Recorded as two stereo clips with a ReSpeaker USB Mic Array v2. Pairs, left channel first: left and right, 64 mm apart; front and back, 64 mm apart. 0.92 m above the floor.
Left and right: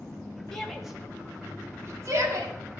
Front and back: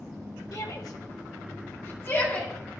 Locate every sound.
0.5 s a shout: 10° left, 1.6 m; by 2.5 s 60° right, 2.5 m